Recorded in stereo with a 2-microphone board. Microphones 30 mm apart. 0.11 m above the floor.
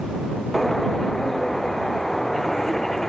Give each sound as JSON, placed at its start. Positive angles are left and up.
{"t": 0.5, "sound": "a bird", "side_deg": 10}